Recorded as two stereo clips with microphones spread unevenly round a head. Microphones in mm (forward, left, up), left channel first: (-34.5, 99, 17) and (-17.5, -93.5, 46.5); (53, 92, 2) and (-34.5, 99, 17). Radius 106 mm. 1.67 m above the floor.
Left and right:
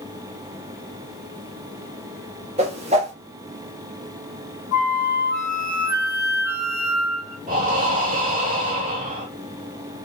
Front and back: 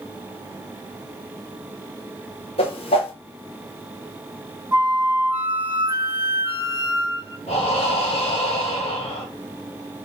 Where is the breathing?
35° right, 1.9 m.